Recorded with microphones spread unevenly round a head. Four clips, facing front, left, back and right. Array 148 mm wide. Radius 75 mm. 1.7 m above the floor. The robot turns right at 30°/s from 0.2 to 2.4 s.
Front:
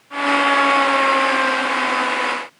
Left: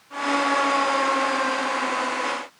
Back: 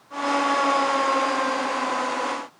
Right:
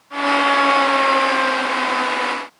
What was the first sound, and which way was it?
Only background noise.